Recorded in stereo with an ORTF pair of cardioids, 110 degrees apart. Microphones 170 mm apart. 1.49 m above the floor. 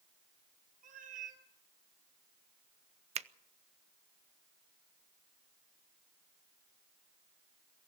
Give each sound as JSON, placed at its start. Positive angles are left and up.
{"t": 0.8, "sound": "a cat meowing", "azimuth_deg": -55, "distance_m": 3.0}
{"t": 3.1, "sound": "a finger snap", "azimuth_deg": -40, "distance_m": 0.8}